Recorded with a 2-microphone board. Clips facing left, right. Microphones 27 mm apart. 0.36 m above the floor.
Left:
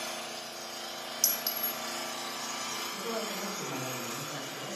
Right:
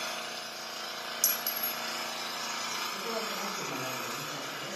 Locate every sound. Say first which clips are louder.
0.0 s an engine running: right 2 dB; 40° right (ahead or behind), 2 m
1.2 s a clink: left 1 dB; 30° left (ahead or behind), 1.4 m
2.9 s a man speaking: right 1 dB; 20° right (ahead or behind), 2.5 m